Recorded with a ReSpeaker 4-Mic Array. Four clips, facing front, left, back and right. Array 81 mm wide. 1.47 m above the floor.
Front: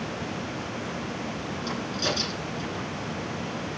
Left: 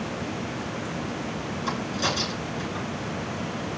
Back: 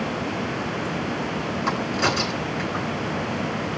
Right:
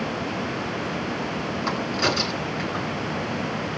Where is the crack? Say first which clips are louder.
Right 3 dB, back 7 dB; 150° right, 8.5 m.